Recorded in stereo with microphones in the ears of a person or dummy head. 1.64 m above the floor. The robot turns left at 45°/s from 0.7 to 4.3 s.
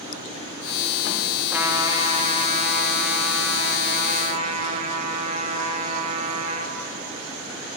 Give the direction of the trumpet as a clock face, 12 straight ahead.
12 o'clock.